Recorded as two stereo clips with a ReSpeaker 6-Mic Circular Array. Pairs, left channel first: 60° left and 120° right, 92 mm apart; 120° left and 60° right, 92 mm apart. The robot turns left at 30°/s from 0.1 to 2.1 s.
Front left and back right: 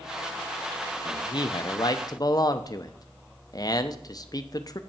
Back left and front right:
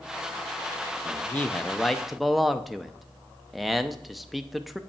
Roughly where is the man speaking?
Ahead left.